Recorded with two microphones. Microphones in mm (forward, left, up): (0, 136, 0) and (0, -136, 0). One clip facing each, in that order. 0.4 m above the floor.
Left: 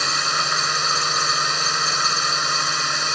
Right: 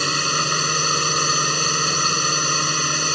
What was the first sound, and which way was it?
A drone, 35° right (ahead or behind).